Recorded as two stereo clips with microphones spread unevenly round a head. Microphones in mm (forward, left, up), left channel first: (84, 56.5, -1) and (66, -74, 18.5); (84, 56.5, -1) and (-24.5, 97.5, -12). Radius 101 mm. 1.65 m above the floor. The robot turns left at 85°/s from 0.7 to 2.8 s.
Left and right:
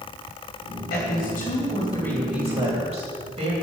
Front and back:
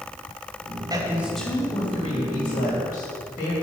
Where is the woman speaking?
110° left, 2.5 m; by 3.5 s 55° right, 2.5 m.